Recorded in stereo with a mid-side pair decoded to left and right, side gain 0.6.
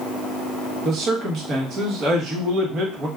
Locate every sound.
0.8 s a man speaking: 45° right, 1.3 m